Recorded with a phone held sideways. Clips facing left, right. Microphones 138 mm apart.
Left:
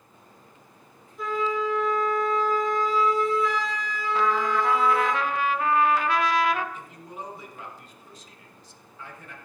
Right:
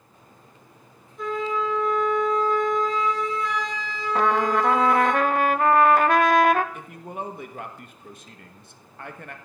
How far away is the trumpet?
About 0.5 m.